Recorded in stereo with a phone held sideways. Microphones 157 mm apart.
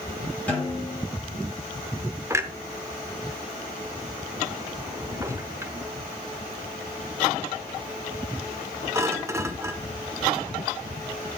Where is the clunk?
20° right (ahead or behind), 0.8 m.